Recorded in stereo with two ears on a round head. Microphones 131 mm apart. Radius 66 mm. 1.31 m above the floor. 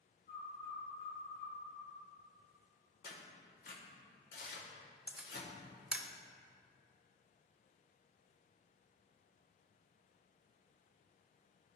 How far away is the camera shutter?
About 0.5 m.